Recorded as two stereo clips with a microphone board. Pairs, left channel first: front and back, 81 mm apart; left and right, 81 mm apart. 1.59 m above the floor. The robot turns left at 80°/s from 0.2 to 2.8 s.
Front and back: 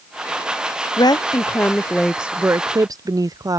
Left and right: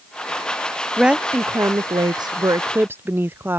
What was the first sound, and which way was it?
A woman speaking, straight ahead.